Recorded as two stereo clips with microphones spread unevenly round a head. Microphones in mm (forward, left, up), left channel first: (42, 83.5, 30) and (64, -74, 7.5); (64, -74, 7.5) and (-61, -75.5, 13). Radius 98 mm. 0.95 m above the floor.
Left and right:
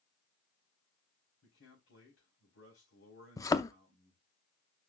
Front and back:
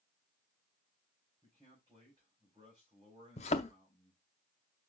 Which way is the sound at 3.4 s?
40° left.